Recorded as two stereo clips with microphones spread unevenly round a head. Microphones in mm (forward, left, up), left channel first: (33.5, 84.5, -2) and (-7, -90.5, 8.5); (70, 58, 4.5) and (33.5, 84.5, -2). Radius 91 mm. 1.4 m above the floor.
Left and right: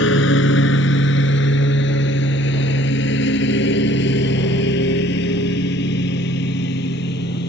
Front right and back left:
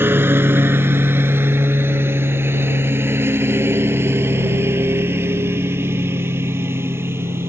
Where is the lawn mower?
105° left; by 7.5 s 115° left.